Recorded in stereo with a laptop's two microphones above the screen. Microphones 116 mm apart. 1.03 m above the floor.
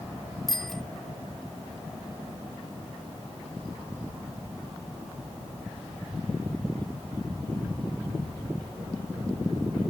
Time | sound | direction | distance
0.5 | a bicycle bell | 5° left (ahead or behind) | ?